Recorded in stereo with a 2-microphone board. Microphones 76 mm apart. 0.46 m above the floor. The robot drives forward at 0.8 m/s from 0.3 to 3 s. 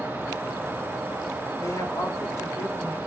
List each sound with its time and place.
1.6 s a woman speaking: 40° left (ahead or behind), 1.7 m; by 3.0 s 30° left (ahead or behind), 2 m